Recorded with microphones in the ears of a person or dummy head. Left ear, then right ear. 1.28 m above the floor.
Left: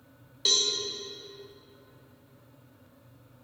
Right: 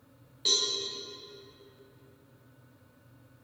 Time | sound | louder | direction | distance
0.5 | a cowbell | left 3 dB | 15° left (ahead or behind) | 0.9 m